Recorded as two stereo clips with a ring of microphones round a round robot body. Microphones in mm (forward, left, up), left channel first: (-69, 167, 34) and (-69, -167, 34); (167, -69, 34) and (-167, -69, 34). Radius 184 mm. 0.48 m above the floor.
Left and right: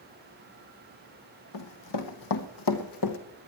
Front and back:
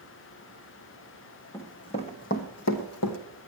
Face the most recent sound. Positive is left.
turn(degrees=45)